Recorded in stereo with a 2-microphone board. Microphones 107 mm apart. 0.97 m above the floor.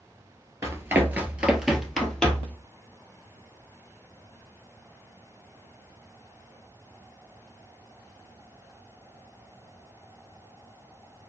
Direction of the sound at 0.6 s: 30° right (ahead or behind).